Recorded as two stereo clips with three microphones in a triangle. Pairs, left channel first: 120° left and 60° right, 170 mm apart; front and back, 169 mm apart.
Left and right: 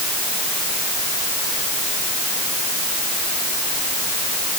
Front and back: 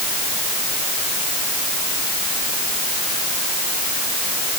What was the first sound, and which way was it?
Only background noise.